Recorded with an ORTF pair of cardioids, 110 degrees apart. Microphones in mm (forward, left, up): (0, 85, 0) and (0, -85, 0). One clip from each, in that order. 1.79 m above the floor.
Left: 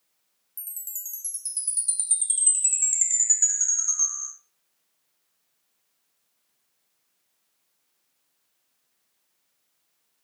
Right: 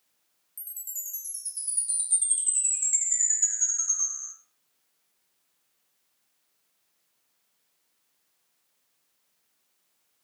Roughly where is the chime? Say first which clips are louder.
Left 1 dB; ahead left.